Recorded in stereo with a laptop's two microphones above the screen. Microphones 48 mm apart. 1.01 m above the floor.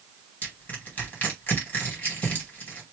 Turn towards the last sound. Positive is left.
turn(degrees=40)  # may be behind; listen again after turning